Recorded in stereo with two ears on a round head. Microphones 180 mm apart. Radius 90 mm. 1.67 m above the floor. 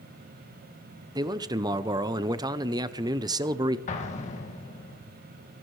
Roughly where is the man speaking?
Centre.